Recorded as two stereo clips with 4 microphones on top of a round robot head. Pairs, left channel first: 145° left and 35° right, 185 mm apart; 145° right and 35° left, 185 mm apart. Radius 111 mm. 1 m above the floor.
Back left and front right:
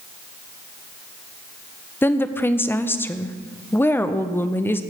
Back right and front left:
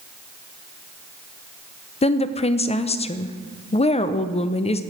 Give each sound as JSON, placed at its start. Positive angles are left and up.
{"t": 2.0, "sound": "a woman speaking", "azimuth_deg": -150, "distance_m": 0.5}